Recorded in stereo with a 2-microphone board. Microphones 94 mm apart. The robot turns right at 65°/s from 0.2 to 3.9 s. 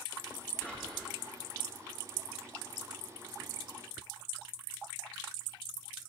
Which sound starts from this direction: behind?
Whispering, at 0.6 s.